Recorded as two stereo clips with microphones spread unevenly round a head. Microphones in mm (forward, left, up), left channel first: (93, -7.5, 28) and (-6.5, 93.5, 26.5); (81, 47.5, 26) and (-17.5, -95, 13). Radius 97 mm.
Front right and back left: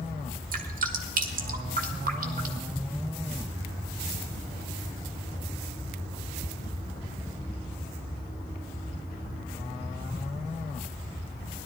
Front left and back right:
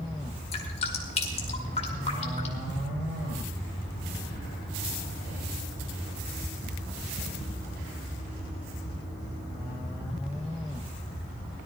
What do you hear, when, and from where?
0.5 s dripping: 115° left, 1.9 m